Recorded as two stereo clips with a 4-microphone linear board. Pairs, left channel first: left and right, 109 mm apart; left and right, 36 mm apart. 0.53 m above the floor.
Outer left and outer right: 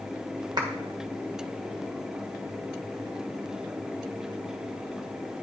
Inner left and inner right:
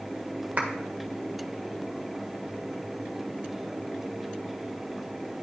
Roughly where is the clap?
Right.